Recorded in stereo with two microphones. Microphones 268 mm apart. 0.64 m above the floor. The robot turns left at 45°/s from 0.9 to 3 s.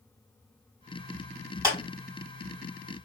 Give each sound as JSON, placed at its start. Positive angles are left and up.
{"t": 1.6, "sound": "a clap", "side_deg": -10, "distance_m": 2.5}